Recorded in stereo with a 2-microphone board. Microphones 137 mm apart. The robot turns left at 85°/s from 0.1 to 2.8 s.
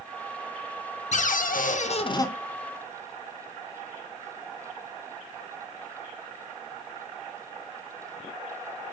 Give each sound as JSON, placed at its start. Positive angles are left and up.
{"t": 1.1, "sound": "a cupboard door", "azimuth_deg": 120, "distance_m": 0.7}